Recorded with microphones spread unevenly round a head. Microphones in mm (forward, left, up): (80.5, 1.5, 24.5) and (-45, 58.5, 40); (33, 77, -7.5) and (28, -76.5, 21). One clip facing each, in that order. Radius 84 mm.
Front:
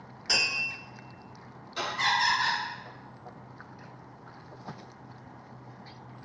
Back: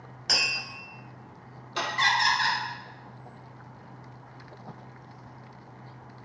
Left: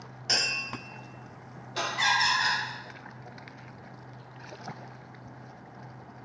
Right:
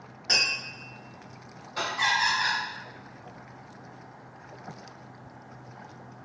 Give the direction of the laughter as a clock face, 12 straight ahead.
7 o'clock.